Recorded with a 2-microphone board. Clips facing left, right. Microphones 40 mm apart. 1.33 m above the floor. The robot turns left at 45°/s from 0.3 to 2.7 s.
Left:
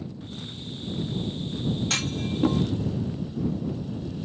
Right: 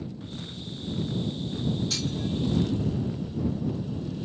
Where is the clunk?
60° left (ahead or behind); by 2.6 s 85° left.